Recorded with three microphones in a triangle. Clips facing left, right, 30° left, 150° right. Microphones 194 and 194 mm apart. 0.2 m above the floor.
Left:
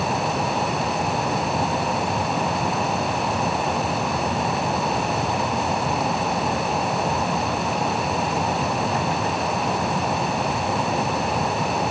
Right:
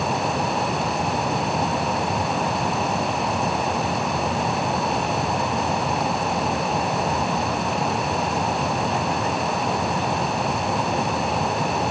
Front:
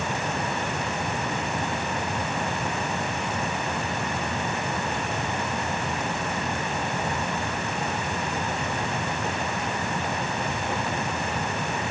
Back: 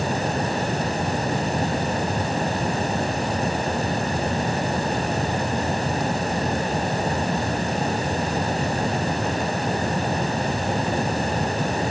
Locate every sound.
Only background noise.